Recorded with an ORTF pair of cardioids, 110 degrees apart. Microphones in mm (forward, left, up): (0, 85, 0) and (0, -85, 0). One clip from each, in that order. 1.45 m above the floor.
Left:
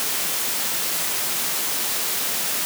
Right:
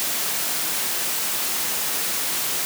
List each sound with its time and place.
Only background noise.